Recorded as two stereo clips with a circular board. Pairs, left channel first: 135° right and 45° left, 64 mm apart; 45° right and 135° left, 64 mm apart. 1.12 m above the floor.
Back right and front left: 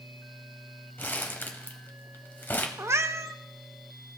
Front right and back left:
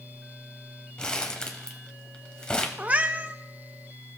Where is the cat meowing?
75° left, 0.5 m.